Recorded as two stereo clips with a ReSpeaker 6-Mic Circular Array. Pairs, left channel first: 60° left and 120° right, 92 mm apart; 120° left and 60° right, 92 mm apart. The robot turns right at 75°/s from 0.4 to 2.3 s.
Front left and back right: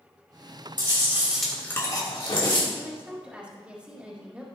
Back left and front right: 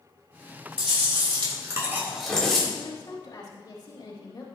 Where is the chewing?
80° right, 3 m; by 2.6 s 35° left, 3 m.